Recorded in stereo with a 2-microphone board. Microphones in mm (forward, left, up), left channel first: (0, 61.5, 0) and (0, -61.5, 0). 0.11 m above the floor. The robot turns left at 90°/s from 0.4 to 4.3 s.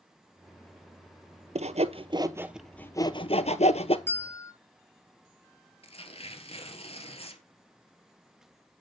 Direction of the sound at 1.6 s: 60° right (ahead or behind).